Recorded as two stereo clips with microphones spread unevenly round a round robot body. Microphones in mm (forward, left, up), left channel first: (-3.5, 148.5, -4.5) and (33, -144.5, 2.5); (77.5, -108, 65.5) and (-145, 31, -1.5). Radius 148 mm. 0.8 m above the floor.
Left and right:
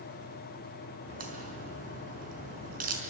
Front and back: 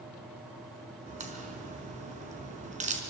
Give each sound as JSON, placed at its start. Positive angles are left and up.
{"t": 1.1, "sound": "a crack", "azimuth_deg": -145, "distance_m": 5.0}